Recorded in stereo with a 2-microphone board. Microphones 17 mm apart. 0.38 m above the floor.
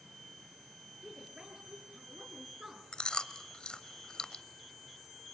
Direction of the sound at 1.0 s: 45° right (ahead or behind).